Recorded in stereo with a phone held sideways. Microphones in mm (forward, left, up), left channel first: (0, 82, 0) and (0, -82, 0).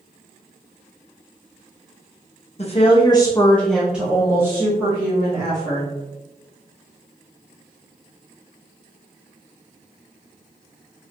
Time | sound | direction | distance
2.6 | a woman speaking | 45° left (ahead or behind) | 0.7 m